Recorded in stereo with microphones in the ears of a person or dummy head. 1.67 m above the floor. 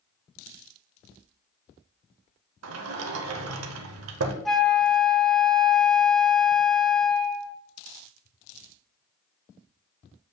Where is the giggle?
No giggle in this recording.